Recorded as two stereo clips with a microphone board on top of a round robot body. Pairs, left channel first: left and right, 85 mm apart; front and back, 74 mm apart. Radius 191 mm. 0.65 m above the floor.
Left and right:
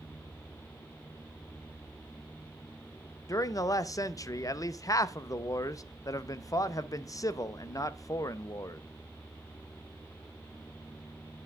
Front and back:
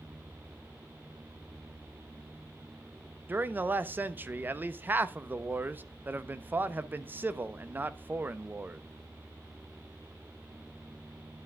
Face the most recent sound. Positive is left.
turn(degrees=125)